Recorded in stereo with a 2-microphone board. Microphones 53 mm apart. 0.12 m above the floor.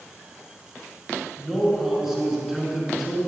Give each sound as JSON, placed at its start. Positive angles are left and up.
{"t": 1.4, "sound": "a man speaking", "side_deg": -5, "distance_m": 1.8}